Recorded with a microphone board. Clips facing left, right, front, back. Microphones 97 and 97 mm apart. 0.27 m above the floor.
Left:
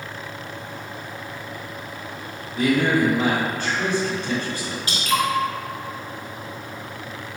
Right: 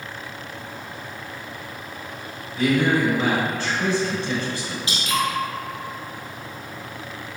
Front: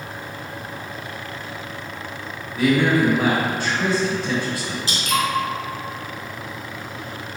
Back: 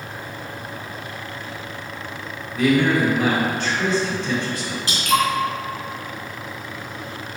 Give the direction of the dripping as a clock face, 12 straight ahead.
5 o'clock.